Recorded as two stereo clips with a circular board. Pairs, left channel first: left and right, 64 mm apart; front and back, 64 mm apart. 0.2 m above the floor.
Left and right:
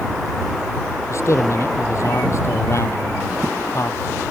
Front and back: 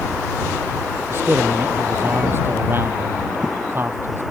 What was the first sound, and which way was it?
A man speaking, 130° left.